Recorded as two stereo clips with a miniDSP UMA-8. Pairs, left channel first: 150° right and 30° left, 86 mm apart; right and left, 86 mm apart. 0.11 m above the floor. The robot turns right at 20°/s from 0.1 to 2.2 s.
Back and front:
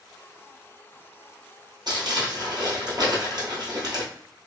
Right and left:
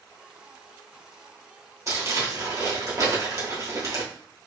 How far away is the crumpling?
About 1.5 m.